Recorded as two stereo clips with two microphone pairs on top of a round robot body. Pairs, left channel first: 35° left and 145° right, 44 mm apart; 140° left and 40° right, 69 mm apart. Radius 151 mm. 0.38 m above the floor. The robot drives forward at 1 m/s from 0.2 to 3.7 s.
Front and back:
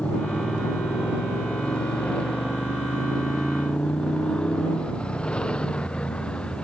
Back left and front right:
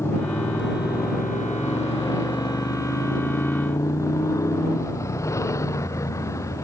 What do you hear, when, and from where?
0.0 s a motorcycle: 90° left; by 6.6 s 100° left